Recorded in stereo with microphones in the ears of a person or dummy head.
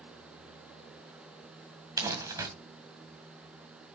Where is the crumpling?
15° right (ahead or behind), 1.9 m.